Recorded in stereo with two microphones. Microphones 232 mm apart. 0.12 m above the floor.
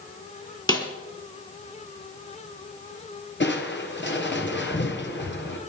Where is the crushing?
50° left (ahead or behind), 2 m.